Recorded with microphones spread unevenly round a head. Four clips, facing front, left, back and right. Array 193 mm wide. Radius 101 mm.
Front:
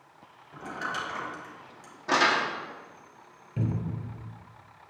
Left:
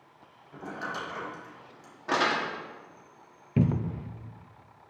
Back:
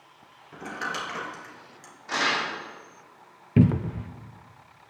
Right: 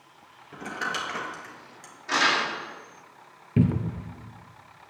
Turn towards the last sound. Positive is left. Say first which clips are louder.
# right 3 dB, back 11 dB
turn(degrees=-165)